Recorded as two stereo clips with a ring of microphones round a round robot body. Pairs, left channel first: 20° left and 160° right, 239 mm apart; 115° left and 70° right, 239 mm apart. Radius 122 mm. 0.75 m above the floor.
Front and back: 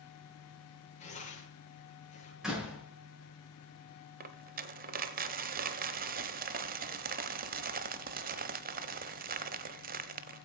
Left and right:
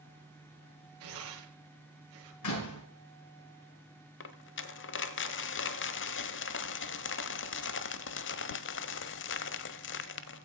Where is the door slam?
115° left, 7.5 m.